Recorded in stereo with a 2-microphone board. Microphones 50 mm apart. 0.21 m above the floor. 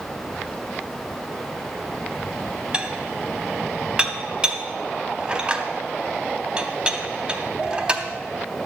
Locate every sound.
2.7 s dishes clattering: 20° right (ahead or behind), 0.9 m